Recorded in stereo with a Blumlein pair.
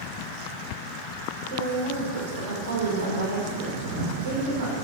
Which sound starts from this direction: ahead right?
A woman speaking, at 1.5 s.